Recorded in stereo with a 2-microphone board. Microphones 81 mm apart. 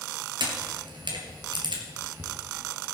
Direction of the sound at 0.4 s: 75° right (ahead or behind).